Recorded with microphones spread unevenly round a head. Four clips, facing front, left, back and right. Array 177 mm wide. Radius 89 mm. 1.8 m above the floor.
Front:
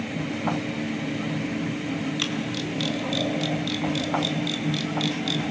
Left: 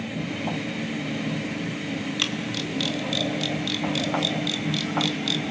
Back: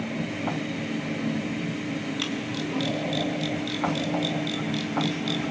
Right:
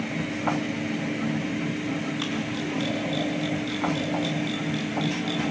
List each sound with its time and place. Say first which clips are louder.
2.2 s a camera shutter: right 1 dB, front 1 dB; 70° left, 3 m